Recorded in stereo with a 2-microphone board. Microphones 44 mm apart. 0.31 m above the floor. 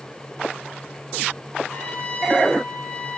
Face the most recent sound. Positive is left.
turn(degrees=25)  # may be behind; listen again after turning